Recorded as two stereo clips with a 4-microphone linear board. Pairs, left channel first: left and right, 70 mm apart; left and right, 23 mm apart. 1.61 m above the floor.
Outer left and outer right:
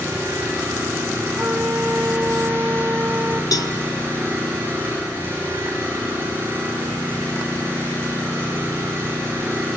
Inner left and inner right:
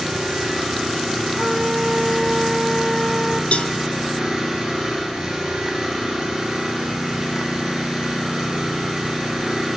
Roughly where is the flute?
Right.